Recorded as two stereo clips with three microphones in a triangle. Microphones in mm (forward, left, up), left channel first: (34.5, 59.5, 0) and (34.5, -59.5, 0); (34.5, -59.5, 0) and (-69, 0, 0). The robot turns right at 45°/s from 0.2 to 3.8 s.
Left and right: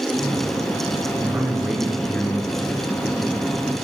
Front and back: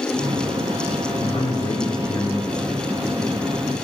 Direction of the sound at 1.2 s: 30° right.